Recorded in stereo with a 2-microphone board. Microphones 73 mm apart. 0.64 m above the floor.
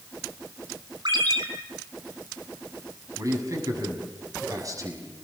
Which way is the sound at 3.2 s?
45° right (ahead or behind).